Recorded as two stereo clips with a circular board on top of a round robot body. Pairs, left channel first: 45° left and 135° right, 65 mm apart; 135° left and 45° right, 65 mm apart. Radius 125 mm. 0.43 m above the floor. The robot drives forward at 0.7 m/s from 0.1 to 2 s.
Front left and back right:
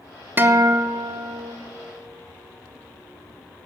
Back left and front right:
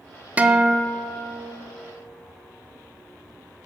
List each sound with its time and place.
0.4 s a guitar: 100° right, 0.7 m; by 1.5 s 155° right, 1.1 m